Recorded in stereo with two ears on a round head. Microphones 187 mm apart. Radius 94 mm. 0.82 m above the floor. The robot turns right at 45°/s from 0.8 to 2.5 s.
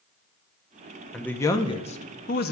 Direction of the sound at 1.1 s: 5° left.